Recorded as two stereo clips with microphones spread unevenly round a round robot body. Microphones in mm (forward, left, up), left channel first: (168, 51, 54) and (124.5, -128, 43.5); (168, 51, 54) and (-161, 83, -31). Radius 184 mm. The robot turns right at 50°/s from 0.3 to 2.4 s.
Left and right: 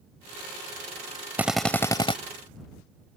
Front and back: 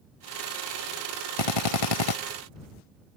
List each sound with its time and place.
1.4 s a drill: 25° right; by 2.2 s 15° left